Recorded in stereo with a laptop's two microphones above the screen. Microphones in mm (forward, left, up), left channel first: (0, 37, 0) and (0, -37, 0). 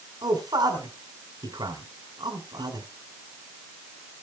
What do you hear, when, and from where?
0.2 s a man speaking: 70° right (ahead or behind), 3.5 m